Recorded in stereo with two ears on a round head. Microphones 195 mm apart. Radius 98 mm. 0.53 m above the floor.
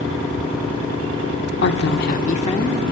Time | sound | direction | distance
1.6 | a woman speaking | 55° left (ahead or behind) | 1.1 m